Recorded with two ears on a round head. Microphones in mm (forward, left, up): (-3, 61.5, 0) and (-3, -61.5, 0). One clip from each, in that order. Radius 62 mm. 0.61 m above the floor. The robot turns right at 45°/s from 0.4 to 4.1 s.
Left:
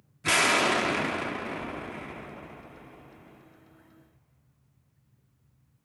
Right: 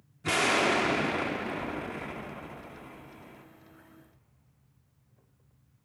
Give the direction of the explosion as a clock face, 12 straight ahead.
8 o'clock.